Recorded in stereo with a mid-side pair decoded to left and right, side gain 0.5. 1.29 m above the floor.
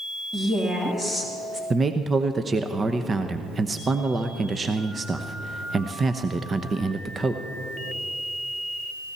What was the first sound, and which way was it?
A woman speaking, 15° right.